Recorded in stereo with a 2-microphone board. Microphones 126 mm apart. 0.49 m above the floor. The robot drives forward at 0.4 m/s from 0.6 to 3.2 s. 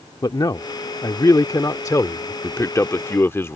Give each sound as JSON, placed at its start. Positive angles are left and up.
{"t": 0.2, "sound": "a man speaking", "side_deg": 35}
{"t": 2.4, "sound": "a man speaking", "side_deg": 25}